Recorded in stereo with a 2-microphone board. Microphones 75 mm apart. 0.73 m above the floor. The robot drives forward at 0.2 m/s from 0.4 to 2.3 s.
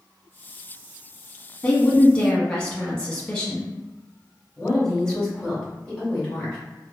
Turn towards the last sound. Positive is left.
turn(degrees=5)  # may be behind; listen again after turning